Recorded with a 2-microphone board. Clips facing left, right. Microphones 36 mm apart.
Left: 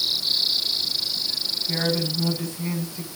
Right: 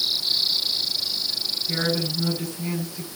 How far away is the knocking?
No knocking in this recording.